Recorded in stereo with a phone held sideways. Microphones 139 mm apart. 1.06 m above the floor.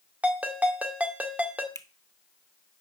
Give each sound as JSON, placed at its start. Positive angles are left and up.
{"t": 0.2, "sound": "a ringtone", "side_deg": -10, "distance_m": 2.0}
{"t": 1.8, "sound": "a finger snap", "side_deg": 25, "distance_m": 0.8}